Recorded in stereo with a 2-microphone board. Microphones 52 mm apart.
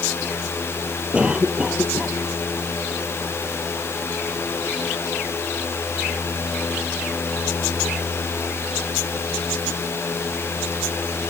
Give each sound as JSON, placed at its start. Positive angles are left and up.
{"t": 1.1, "sound": "a cough", "side_deg": -20}